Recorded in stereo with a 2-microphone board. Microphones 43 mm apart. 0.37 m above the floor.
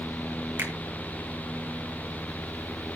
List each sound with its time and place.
0.6 s a finger snap: 65° right (ahead or behind), 6 m